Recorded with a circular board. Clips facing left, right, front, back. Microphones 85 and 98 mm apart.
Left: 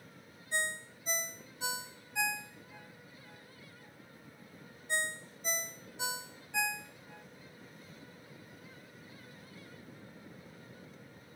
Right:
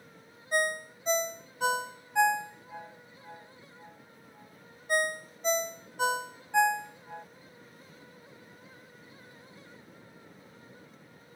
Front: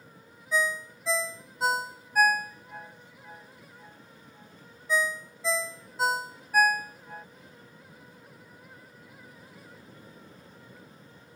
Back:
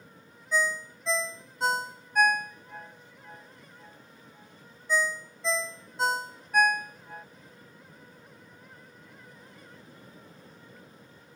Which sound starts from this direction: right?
A ringtone, at 0.5 s.